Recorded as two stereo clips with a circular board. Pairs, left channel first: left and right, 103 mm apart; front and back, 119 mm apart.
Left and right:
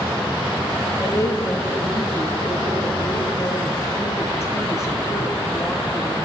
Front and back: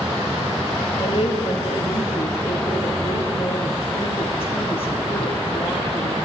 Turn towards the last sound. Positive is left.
turn(degrees=30)